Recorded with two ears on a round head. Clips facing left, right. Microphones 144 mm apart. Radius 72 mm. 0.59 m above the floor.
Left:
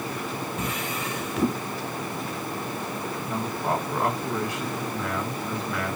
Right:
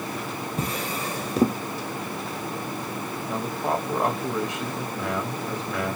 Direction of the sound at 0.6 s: 30° right (ahead or behind).